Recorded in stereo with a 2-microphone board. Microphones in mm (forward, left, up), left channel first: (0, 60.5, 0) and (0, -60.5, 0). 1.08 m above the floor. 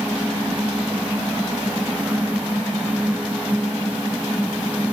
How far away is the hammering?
No hammering in this recording.